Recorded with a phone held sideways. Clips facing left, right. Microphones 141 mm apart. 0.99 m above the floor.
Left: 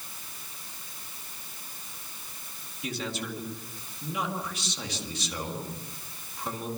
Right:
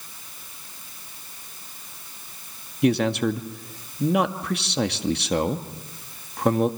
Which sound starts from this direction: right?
A man speaking, at 2.8 s.